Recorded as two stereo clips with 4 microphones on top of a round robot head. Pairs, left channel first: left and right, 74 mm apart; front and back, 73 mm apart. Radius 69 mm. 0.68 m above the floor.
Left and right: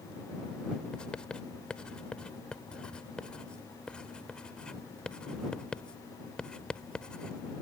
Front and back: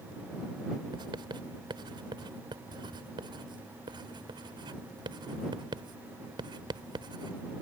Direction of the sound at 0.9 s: 170° left.